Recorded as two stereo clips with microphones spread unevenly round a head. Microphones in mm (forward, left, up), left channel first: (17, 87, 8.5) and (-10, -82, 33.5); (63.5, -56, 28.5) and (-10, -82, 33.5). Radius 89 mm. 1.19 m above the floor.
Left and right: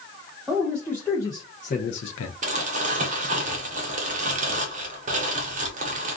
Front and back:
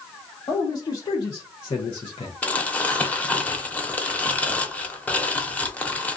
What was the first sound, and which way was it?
A man speaking, 10° right.